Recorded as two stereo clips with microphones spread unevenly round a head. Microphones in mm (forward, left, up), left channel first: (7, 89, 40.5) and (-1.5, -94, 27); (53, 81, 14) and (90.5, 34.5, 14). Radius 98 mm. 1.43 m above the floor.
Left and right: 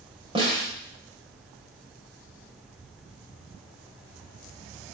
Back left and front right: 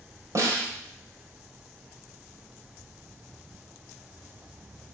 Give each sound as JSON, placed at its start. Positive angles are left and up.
{"t": 0.3, "sound": "a snare drum", "azimuth_deg": -30, "distance_m": 3.0}